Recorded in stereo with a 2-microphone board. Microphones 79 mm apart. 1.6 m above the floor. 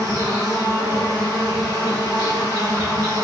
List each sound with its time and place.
0.0 s an insect: 45° right (ahead or behind), 1.3 m